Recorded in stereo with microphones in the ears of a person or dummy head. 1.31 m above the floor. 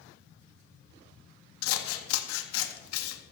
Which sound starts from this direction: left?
Scissors, at 1.6 s.